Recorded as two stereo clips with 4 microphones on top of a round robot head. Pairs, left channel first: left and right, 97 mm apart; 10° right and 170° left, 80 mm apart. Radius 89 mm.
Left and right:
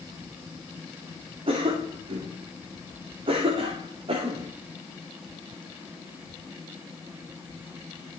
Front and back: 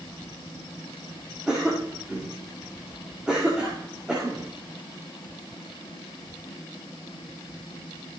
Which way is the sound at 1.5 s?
105° right.